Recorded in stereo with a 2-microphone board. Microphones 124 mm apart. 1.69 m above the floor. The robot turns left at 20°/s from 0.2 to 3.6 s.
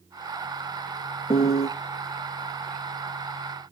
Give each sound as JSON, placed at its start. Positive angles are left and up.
{"t": 1.3, "sound": "a piano", "side_deg": 50, "distance_m": 0.6}